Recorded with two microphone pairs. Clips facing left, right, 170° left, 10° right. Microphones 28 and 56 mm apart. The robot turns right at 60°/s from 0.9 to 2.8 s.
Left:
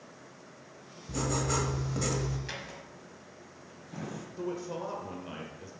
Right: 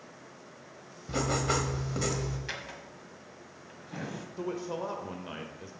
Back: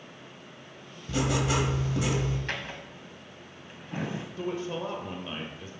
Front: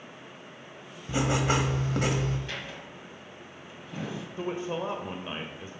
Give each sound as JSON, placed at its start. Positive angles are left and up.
{"t": 1.1, "sound": "writing", "azimuth_deg": -70, "distance_m": 1.5}
{"t": 2.5, "sound": "a drawer", "azimuth_deg": -170, "distance_m": 1.4}
{"t": 4.4, "sound": "a man speaking", "azimuth_deg": -30, "distance_m": 0.9}